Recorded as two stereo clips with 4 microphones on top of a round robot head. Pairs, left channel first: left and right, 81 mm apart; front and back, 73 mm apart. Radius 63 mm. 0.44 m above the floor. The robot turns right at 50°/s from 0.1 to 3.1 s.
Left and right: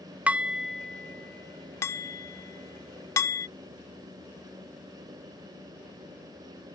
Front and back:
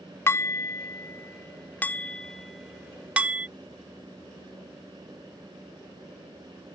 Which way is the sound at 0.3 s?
25° right.